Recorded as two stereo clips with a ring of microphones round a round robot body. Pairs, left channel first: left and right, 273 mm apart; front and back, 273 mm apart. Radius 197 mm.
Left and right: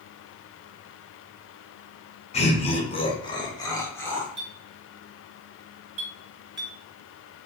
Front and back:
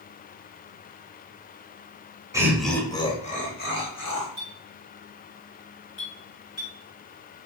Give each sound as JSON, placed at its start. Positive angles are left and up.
{"t": 2.3, "sound": "laughter", "azimuth_deg": 115, "distance_m": 0.8}
{"t": 4.4, "sound": "a clink", "azimuth_deg": -40, "distance_m": 1.7}
{"t": 6.0, "sound": "a clink", "azimuth_deg": -50, "distance_m": 1.8}